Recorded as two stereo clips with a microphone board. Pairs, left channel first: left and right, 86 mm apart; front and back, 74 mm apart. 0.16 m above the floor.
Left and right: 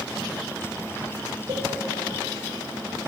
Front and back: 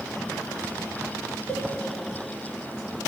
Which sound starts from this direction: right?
A cowbell, at 1.5 s.